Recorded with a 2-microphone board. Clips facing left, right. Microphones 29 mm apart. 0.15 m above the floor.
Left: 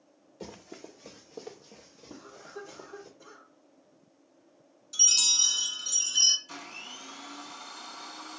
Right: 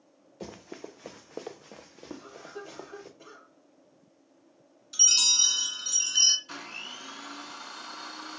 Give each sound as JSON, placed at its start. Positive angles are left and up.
{"t": 0.4, "sound": "running footsteps", "side_deg": -10, "distance_m": 0.8}
{"t": 2.1, "sound": "a cough", "side_deg": -65, "distance_m": 3.0}
{"t": 4.9, "sound": "a chime", "side_deg": -20, "distance_m": 0.7}
{"t": 6.5, "sound": "a blender", "side_deg": -30, "distance_m": 0.9}